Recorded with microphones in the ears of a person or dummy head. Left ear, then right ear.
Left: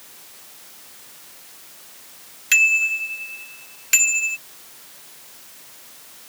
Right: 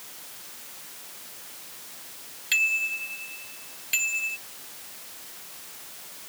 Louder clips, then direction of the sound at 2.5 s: Left 8 dB; 45° left (ahead or behind).